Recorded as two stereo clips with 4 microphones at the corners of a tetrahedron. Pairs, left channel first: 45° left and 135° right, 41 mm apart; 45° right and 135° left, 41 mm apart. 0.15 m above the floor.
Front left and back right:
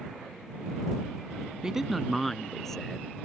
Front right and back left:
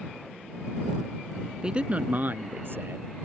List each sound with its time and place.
1.6 s a man speaking: straight behind; by 3.1 s 120° left